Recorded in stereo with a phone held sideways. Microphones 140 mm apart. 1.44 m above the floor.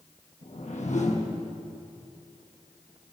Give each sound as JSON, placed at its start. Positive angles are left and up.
{"t": 0.4, "sound": "a whoosh", "side_deg": 55, "distance_m": 1.4}